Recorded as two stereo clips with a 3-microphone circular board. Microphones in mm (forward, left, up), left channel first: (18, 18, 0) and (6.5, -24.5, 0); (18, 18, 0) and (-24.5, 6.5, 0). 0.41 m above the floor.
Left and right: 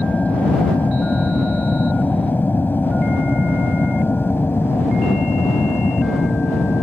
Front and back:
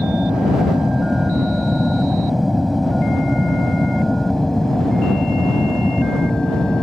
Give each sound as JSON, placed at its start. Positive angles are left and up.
{"t": 0.0, "sound": "an aircraft", "azimuth_deg": 120}